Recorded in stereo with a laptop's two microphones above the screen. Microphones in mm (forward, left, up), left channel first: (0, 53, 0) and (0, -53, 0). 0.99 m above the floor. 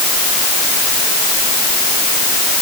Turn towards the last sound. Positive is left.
No sound to turn to.